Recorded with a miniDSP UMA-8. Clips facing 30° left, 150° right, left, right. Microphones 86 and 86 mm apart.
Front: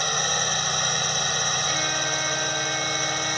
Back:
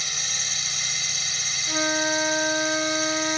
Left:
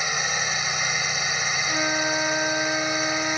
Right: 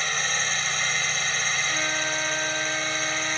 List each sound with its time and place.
0.0 s a drone: 15° left
1.7 s a flute: 155° left